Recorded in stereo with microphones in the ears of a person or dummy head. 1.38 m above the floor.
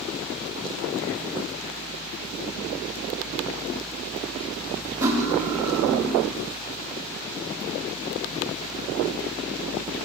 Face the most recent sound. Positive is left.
turn(degrees=-15)  # may be behind; listen again after turning